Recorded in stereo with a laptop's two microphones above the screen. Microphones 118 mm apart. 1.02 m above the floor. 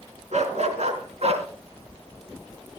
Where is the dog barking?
75° right (ahead or behind), 3.5 m; by 1.5 s 65° right (ahead or behind), 3 m.